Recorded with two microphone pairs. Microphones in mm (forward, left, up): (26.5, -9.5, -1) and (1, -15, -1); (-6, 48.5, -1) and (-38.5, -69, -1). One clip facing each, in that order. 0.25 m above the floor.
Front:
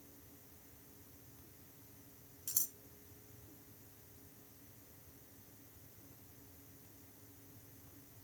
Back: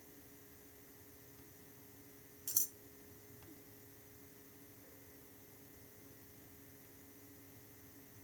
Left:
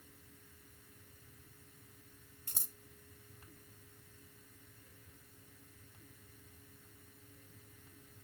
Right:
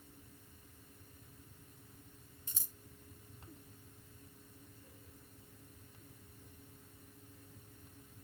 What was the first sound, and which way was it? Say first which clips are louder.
Scissors: back 1 dB, left 4 dB; 105° left.